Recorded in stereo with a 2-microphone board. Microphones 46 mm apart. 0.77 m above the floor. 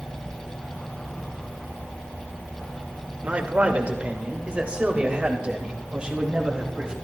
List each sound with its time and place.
3.2 s a man speaking: 30° right (ahead or behind), 3 m; by 6.9 s 15° right (ahead or behind), 5 m